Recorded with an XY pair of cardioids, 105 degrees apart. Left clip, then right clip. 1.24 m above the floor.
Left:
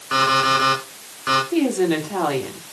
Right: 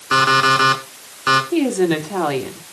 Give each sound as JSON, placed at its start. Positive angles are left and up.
{"t": 0.1, "sound": "an alarm clock", "azimuth_deg": -40, "distance_m": 5.0}
{"t": 1.5, "sound": "a woman speaking", "azimuth_deg": -15, "distance_m": 2.5}